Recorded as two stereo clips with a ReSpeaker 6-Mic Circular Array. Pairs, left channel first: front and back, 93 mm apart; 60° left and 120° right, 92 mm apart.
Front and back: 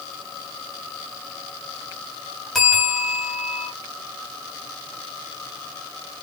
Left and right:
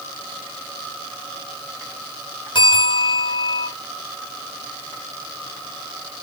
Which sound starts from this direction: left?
A bell, at 2.5 s.